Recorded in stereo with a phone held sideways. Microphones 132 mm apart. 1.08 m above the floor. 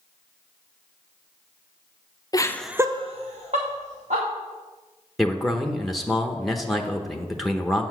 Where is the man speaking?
Centre (ahead or behind), 0.9 m.